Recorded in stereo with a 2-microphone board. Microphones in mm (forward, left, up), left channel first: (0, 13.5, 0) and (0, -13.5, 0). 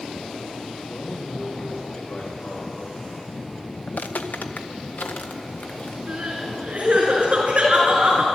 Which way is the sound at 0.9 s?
75° left (ahead or behind).